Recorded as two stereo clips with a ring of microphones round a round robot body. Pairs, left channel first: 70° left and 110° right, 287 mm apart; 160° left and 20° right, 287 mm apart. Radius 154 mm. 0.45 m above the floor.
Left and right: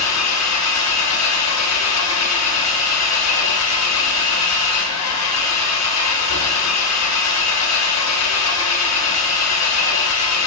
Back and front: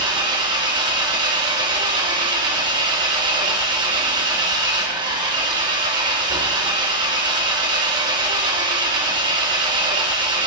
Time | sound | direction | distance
0.0 | an engine running | 50° left | 1.6 m